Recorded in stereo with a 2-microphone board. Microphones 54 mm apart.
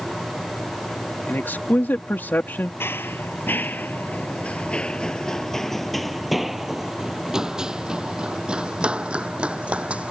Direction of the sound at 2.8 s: 45° left (ahead or behind).